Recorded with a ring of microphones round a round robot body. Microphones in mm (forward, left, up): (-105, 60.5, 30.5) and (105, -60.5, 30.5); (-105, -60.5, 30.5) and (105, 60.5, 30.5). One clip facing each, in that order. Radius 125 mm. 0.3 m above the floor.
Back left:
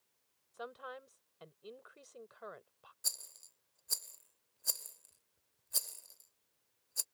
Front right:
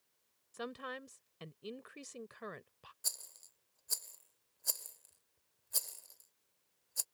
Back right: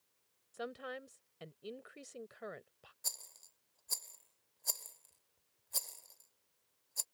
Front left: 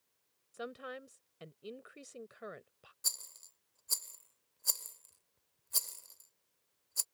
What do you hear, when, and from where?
0.5 s a woman speaking: 55° right
3.0 s a rattle: 65° left